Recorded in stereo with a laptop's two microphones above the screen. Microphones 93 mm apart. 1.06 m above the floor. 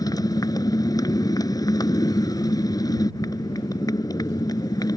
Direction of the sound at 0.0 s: 45° left (ahead or behind).